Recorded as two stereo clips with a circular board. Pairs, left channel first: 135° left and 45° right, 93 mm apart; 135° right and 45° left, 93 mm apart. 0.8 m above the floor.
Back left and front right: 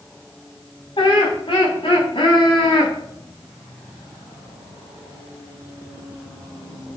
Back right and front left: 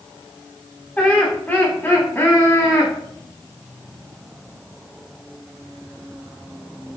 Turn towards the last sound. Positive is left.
turn(degrees=165)